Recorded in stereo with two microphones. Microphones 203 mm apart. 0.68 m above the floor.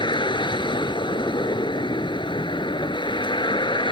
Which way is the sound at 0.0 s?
20° left (ahead or behind).